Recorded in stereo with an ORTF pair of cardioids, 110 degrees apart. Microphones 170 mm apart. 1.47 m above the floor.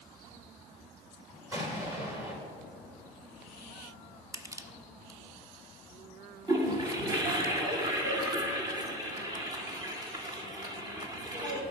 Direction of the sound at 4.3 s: 20° right.